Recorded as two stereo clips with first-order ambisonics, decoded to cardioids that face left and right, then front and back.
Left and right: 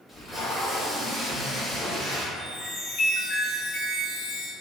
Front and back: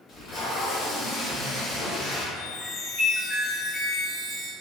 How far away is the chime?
About 0.8 m.